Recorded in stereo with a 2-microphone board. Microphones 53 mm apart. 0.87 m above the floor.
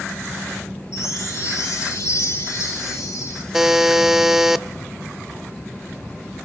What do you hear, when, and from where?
0.9 s a chime: 70° left (ahead or behind), 4 m
3.5 s a buzzer: 10° right (ahead or behind), 0.6 m